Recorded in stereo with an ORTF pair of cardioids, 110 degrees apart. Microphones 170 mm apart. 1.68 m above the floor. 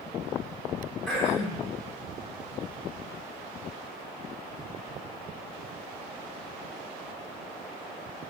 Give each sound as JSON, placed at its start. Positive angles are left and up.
{"t": 1.1, "sound": "throat clearing", "azimuth_deg": 0, "distance_m": 1.1}